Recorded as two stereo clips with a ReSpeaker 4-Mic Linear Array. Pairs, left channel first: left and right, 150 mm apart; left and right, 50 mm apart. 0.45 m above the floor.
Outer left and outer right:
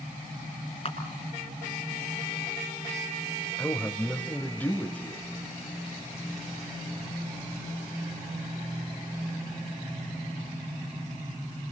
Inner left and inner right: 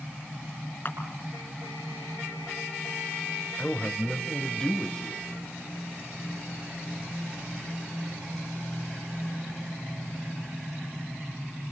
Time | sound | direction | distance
0.8 | a camera shutter | 40° left (ahead or behind) | 5.5 m
3.6 | a man speaking | 10° left (ahead or behind) | 1.8 m